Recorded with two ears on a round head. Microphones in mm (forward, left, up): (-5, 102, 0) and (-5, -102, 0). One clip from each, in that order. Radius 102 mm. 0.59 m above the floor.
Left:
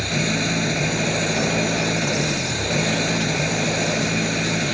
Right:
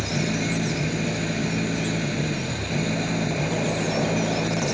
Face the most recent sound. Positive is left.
turn(degrees=35)  # may be behind; listen again after turning